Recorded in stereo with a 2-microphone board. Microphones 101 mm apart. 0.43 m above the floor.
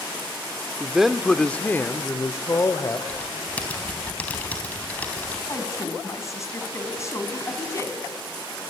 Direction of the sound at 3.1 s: 15° left (ahead or behind).